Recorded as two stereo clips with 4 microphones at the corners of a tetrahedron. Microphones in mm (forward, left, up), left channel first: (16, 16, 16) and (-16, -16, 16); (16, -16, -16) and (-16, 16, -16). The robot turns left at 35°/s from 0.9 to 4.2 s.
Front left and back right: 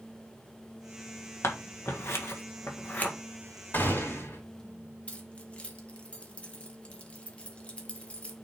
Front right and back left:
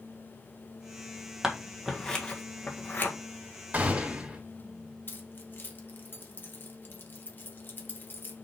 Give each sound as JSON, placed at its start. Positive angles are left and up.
{"t": 1.4, "sound": "scissors", "azimuth_deg": 55, "distance_m": 1.7}
{"t": 3.7, "sound": "a gunshot", "azimuth_deg": 85, "distance_m": 3.0}
{"t": 5.1, "sound": "keys jangling", "azimuth_deg": -15, "distance_m": 1.6}